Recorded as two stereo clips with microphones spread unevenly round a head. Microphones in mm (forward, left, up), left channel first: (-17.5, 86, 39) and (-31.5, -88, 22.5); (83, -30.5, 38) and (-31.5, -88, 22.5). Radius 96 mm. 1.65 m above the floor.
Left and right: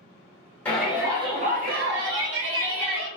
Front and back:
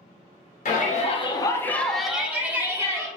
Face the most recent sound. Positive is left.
turn(degrees=-85)